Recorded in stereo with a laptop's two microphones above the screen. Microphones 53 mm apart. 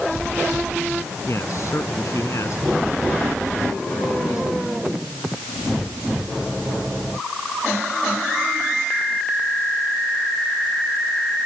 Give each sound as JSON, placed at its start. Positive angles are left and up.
{"t": 1.3, "sound": "a man speaking", "side_deg": 60}